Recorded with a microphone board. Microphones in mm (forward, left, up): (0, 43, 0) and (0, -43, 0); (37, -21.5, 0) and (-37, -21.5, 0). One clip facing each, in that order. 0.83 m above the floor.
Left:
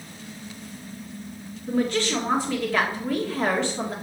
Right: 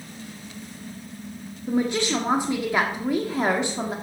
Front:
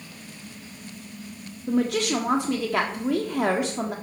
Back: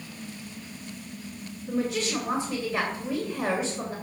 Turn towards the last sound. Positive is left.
turn(degrees=-15)